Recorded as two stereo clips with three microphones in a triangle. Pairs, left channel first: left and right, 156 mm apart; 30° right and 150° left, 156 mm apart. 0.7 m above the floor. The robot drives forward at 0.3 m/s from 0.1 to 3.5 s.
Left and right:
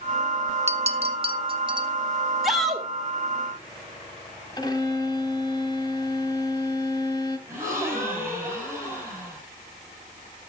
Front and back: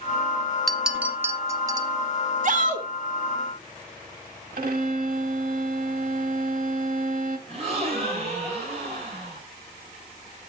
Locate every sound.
0.7 s a clink: 120° right, 0.5 m; by 1.9 s 145° right, 0.8 m
2.4 s a shout: straight behind, 1.9 m
4.6 s a violin: 150° left, 1.0 m
7.5 s a gasp: 165° right, 6 m